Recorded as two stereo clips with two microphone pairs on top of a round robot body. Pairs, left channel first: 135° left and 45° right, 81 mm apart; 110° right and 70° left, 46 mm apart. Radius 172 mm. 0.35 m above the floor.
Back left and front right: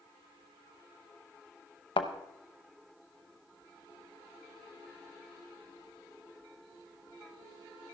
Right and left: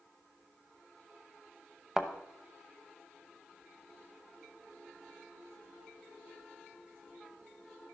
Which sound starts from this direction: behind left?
A thud, at 2.0 s.